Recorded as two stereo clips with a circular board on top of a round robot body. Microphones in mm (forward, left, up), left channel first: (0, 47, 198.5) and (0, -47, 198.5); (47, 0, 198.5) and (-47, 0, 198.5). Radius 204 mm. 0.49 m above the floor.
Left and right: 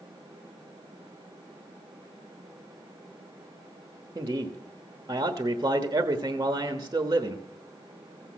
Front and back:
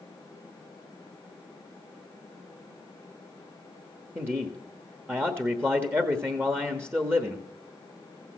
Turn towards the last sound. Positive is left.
turn(degrees=-125)